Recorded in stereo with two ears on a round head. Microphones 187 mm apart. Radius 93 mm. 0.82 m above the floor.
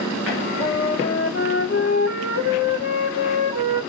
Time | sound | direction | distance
0.3 | a flute | 60° left (ahead or behind) | 3 m